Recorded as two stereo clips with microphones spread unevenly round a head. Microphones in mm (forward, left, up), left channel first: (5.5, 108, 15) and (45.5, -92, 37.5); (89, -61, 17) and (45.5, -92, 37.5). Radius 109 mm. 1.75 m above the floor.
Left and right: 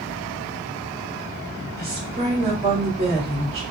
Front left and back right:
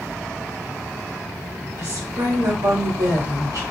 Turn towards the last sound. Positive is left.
turn(degrees=-140)